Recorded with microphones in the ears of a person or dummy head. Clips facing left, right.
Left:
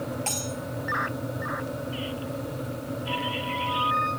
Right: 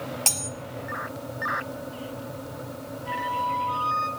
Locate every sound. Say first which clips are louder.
0.3 s cutlery clinking: left 3 dB; 65° right (ahead or behind), 0.9 m
3.0 s a flute: even; 70° right (ahead or behind), 8.5 m